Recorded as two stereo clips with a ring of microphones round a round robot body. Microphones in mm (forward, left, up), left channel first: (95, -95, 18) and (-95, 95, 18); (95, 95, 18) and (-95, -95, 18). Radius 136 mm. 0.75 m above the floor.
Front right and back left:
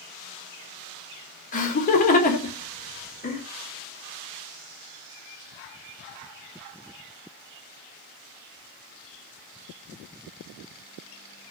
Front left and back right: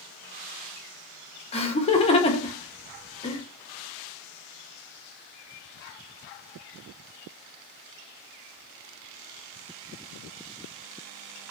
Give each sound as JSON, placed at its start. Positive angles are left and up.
{"t": 1.5, "sound": "laughter", "azimuth_deg": -5, "distance_m": 0.7}